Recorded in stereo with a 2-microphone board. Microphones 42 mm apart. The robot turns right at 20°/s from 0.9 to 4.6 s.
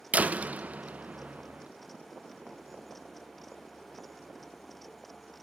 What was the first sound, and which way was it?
A door slam, 40° right (ahead or behind).